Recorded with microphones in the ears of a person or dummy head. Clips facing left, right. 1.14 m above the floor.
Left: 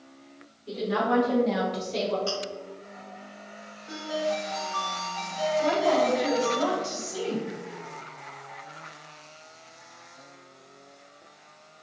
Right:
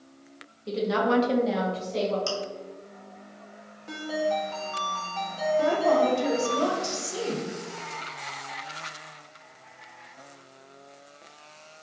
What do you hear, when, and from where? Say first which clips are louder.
0.7 s a woman speaking: right 2 dB; 80° right, 1.3 m; by 2.2 s 50° left (ahead or behind), 1.3 m
2.3 s chewing: even; 80° right, 1.6 m
3.9 s a ringtone: right 1 dB; 45° right (ahead or behind), 0.9 m
5.6 s a woman speaking: right 1 dB; 75° right (ahead or behind), 1.4 m